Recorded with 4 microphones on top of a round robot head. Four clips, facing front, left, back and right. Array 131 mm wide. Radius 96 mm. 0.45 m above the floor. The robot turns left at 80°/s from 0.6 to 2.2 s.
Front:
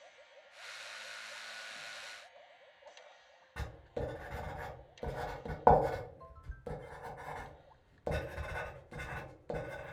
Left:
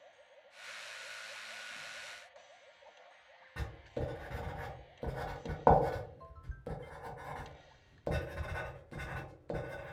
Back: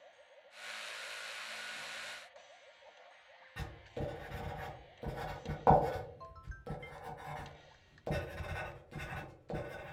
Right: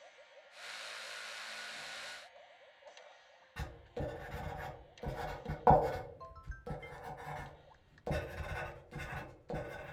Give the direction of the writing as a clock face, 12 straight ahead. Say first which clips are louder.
Left 2 dB, front 2 dB; 10 o'clock.